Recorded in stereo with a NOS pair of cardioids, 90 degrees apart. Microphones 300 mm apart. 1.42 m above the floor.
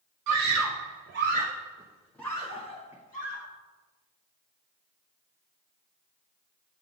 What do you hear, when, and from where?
0.3 s a scream: 70° right, 1.0 m; by 3.5 s 30° left, 1.3 m